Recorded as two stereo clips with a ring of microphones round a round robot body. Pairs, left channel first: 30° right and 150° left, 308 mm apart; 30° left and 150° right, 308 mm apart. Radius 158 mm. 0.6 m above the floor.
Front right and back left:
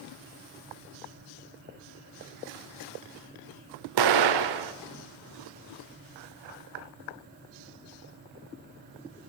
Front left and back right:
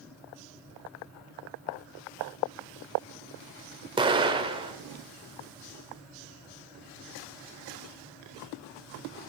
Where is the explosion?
135° left, 0.8 m.